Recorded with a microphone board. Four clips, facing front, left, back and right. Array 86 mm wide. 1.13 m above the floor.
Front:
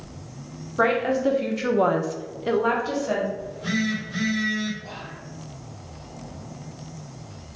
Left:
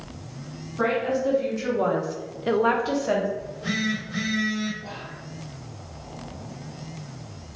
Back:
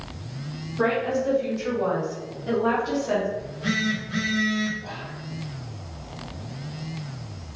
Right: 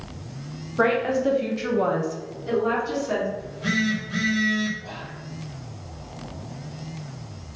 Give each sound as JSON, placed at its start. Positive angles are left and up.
{"t": 0.8, "sound": "a woman speaking", "azimuth_deg": -40, "distance_m": 1.2}
{"t": 3.4, "sound": "a phone buzzing", "azimuth_deg": -130, "distance_m": 1.3}
{"t": 4.8, "sound": "whispering", "azimuth_deg": 165, "distance_m": 1.9}